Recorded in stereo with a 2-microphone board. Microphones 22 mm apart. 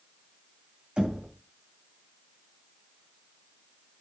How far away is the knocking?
About 2.5 m.